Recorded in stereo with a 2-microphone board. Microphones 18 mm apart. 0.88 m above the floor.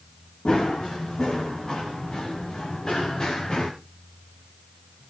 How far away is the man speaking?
I don't hear a man speaking.